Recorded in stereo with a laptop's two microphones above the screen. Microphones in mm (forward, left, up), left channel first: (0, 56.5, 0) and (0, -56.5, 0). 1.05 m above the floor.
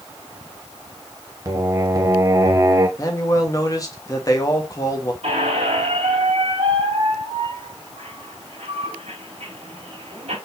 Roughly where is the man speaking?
Left.